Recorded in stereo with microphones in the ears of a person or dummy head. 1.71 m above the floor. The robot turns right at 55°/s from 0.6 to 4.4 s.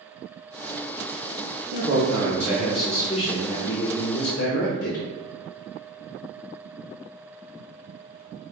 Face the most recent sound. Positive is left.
turn(degrees=90)